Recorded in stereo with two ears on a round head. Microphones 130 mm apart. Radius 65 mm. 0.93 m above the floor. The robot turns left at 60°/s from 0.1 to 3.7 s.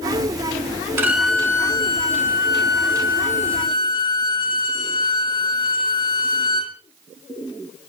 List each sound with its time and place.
1.0 s a violin: 160° right, 2.5 m; by 6.8 s 35° left, 2.5 m